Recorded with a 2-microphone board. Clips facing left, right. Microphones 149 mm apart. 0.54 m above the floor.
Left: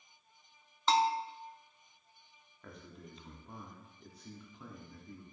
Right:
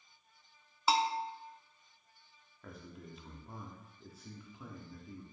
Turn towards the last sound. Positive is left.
turn(degrees=-5)  # may be behind; listen again after turning